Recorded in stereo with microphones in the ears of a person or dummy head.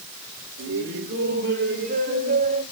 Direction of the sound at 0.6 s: 70° right (ahead or behind).